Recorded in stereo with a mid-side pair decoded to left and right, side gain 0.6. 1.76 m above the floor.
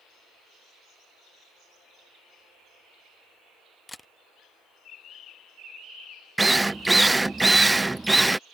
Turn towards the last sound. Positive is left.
turn(degrees=-10)